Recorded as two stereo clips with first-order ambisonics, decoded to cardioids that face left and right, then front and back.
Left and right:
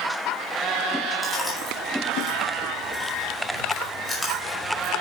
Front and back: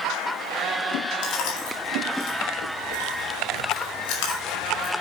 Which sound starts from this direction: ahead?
Chewing, at 1.2 s.